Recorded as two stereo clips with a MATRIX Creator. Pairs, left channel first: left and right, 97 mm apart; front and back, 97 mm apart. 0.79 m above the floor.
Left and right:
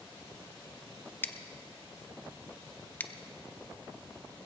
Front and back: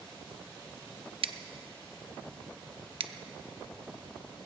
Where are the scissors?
160° left, 0.5 m.